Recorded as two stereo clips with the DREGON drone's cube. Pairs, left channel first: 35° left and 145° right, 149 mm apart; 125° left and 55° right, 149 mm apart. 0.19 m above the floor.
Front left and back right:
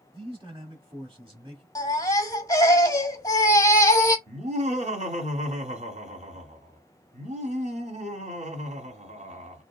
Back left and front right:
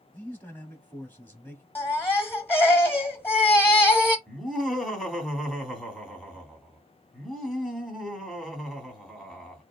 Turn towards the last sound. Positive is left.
turn(degrees=-145)